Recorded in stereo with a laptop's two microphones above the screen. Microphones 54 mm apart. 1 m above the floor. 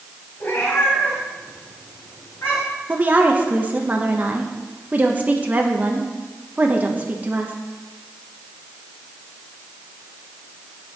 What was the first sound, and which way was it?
A cat meowing, 40° left (ahead or behind).